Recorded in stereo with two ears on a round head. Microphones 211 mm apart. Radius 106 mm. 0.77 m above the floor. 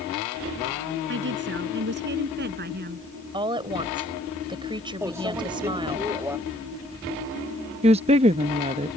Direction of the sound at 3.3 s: 20° right (ahead or behind).